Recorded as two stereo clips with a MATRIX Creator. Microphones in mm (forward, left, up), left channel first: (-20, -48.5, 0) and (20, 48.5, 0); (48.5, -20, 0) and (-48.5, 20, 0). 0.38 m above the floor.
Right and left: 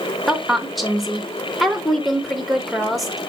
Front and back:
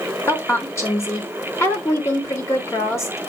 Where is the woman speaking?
25° right, 0.8 m.